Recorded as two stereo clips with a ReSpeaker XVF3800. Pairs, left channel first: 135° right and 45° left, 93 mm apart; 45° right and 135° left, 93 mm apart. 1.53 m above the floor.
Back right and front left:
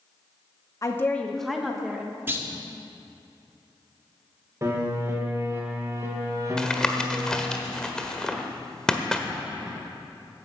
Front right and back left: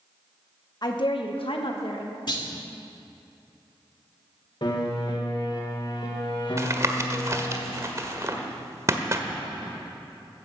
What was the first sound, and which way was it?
A woman speaking, 85° right.